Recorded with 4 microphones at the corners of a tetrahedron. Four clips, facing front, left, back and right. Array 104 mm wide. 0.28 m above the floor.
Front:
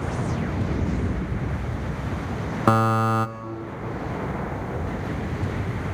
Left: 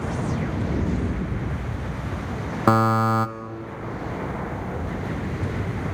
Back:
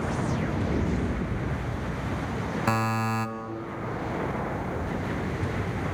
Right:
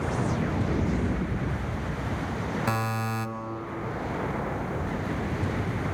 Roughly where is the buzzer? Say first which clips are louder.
Left 15 dB, front 8 dB; ahead left.